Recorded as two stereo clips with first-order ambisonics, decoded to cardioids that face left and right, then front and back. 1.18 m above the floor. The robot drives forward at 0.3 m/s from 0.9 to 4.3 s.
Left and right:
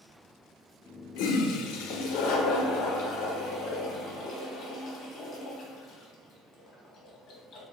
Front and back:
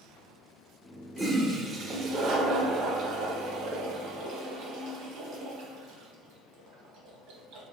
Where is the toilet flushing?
90° left, 0.5 m; by 7.6 s 150° left, 1.1 m.